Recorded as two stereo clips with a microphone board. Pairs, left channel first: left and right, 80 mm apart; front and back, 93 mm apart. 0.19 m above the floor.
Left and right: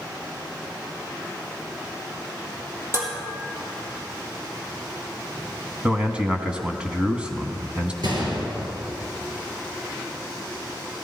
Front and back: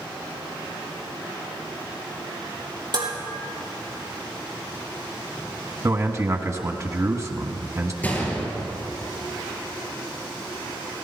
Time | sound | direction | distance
2.9 | dishes clattering | 145° right | 4 m
5.8 | a man speaking | 160° right | 1.3 m
8.0 | a gunshot | 70° right | 3.5 m